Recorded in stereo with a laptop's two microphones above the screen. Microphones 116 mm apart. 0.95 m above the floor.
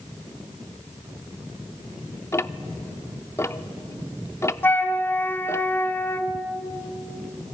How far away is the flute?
About 1.3 m.